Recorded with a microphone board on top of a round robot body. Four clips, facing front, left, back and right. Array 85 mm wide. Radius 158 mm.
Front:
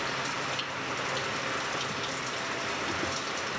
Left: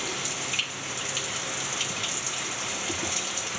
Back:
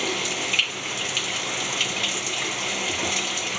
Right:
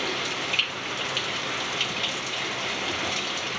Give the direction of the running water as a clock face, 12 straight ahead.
5 o'clock.